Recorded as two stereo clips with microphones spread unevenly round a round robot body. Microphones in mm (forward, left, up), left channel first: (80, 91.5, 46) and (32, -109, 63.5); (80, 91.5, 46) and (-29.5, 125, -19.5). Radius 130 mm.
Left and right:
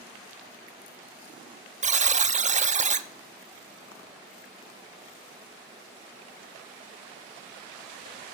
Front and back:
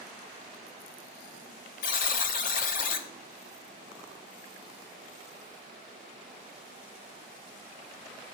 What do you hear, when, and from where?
1.8 s a buzzer: 55° right, 1.2 m